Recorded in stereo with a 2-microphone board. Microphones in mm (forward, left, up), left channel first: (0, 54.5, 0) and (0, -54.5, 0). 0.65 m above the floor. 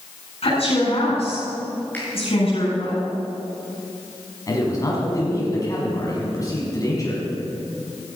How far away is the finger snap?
About 6 m.